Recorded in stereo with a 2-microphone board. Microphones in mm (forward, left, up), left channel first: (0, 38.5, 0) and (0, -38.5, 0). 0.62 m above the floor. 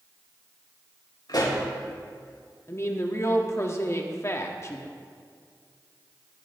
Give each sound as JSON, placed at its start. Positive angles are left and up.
{"t": 1.3, "sound": "a pop", "side_deg": 70, "distance_m": 3.5}
{"t": 2.7, "sound": "a woman speaking", "side_deg": 40, "distance_m": 1.3}